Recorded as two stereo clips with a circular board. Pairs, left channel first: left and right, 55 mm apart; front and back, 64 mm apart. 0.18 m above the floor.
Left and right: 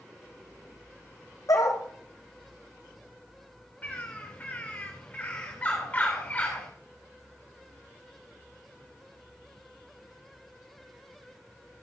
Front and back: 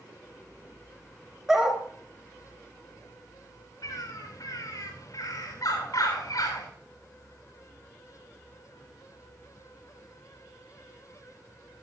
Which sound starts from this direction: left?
A dog barking, at 1.5 s.